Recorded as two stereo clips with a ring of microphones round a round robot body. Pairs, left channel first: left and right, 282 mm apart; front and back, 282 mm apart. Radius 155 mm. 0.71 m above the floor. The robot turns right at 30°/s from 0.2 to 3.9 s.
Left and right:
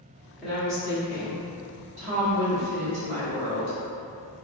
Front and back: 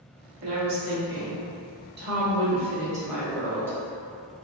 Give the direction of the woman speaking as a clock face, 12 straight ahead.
6 o'clock.